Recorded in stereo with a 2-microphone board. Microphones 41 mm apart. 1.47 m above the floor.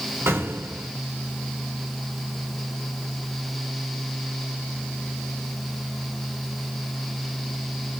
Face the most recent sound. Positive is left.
turn(degrees=-80)